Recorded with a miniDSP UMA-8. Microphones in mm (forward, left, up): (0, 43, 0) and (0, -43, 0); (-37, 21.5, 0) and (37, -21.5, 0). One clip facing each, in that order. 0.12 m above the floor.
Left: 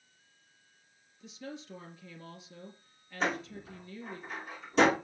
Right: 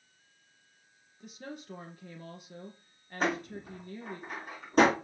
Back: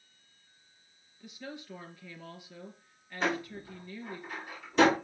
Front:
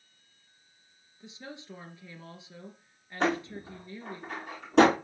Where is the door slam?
45° right, 5.5 m.